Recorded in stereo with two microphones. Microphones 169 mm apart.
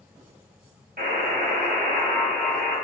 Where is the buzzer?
60° right (ahead or behind), 0.9 m.